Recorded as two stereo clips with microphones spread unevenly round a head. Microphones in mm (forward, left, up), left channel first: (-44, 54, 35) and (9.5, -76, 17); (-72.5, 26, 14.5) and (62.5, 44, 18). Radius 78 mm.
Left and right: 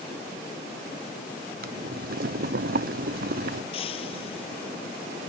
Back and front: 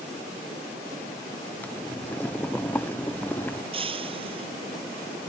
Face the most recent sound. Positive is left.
turn(degrees=55)